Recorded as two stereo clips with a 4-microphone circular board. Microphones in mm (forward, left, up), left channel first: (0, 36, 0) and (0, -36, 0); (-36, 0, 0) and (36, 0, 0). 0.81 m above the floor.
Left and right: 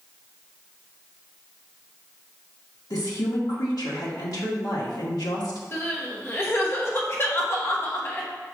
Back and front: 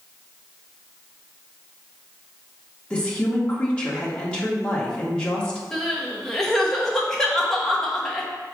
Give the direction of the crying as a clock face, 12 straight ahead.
9 o'clock.